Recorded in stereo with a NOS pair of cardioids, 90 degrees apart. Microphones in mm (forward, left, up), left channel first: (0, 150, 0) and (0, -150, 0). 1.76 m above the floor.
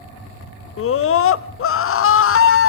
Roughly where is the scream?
Ahead left.